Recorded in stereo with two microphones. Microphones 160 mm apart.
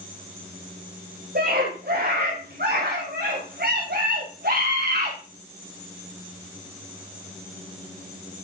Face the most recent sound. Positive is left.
turn(degrees=-80)